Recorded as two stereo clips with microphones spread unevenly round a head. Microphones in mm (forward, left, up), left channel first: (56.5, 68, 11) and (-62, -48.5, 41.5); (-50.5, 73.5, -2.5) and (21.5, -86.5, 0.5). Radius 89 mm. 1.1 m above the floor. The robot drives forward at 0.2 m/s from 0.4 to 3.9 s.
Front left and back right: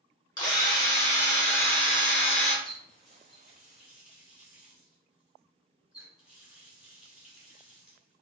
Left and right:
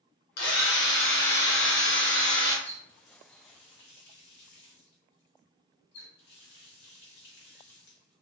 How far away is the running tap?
About 1.2 m.